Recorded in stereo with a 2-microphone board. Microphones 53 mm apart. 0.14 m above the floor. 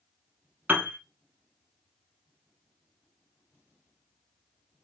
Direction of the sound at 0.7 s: 35° right (ahead or behind).